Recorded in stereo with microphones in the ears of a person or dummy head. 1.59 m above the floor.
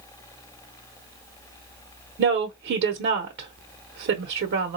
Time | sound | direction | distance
2.2 | a woman speaking | 55° right (ahead or behind) | 0.9 m